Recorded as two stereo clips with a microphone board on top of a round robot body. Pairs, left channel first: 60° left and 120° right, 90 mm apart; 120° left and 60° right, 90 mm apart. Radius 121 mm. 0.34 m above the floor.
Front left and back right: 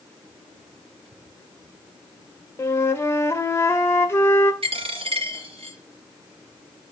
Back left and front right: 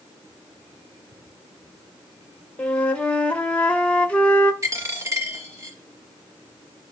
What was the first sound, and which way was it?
A flute, 60° left.